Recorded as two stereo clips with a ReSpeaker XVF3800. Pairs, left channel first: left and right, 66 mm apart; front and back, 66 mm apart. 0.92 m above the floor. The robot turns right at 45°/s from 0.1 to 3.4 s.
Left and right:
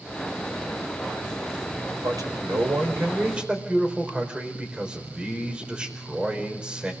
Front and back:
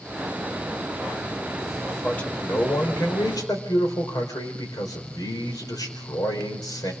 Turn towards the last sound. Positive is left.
turn(degrees=-15)